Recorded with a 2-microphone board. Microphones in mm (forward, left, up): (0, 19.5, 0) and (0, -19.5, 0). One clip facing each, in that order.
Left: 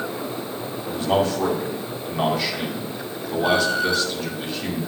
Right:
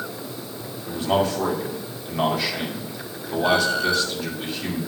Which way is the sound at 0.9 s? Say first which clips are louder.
Left 1 dB; centre (ahead or behind).